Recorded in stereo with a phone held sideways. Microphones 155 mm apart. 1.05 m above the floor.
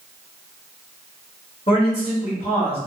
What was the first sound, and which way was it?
A man speaking, 45° left (ahead or behind).